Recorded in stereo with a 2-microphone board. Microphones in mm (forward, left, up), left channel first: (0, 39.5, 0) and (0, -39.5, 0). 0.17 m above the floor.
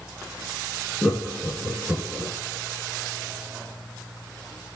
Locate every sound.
1.0 s laughter: 10° right (ahead or behind), 2 m